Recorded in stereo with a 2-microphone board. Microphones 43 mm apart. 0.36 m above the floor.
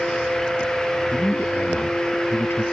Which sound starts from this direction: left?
A man speaking, at 1.1 s.